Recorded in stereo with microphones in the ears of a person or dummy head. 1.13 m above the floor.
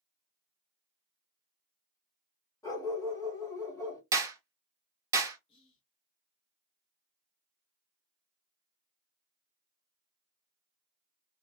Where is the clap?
15° right (ahead or behind), 0.8 m.